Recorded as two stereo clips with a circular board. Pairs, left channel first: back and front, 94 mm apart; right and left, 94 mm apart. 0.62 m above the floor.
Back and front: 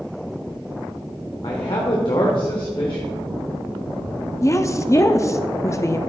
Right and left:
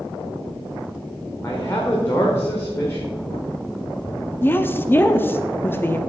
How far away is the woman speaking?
About 0.7 m.